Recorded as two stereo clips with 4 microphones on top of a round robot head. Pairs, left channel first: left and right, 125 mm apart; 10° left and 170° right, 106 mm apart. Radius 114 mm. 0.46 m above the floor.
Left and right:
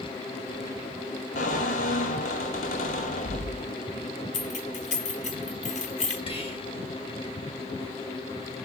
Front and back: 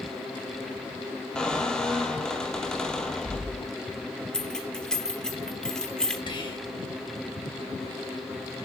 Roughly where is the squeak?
Left.